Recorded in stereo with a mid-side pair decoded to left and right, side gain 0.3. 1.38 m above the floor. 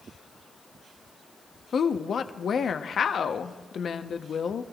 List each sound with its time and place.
1.7 s a woman speaking: 70° left, 0.8 m